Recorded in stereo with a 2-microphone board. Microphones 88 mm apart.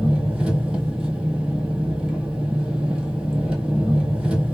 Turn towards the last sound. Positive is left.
turn(degrees=-10)  # may be behind; listen again after turning